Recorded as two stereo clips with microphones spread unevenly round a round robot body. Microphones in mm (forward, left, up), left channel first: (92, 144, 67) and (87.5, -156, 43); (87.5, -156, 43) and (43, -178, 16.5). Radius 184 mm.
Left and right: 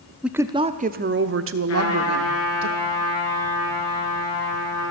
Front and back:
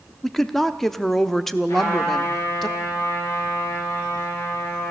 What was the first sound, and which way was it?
A woman speaking, 165° right.